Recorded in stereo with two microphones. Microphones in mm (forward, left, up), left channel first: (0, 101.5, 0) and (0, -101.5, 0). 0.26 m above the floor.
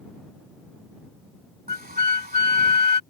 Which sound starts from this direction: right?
A flute, at 1.7 s.